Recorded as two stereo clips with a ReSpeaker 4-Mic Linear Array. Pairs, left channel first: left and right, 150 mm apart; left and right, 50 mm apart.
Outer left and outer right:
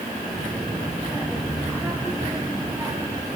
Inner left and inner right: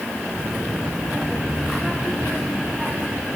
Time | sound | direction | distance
0.3 | a child speaking | 5° right (ahead or behind) | 6.5 m